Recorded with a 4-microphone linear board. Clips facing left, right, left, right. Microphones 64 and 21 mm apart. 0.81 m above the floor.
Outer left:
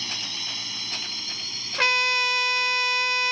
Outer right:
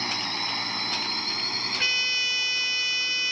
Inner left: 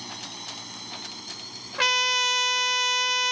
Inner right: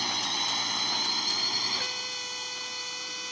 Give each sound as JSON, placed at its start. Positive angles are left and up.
{"t": 0.0, "sound": "a drone", "side_deg": -45}
{"t": 1.8, "sound": "a trumpet", "side_deg": 75}